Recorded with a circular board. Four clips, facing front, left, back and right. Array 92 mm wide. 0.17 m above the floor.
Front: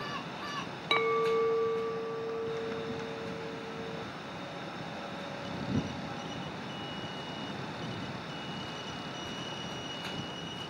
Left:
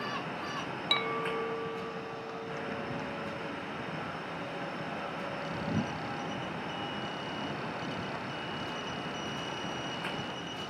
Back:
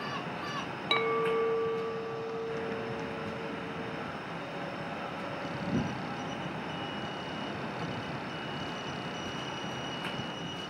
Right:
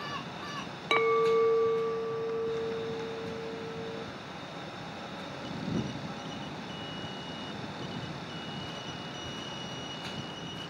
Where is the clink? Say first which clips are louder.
Right 10 dB, front 1 dB; 85° right.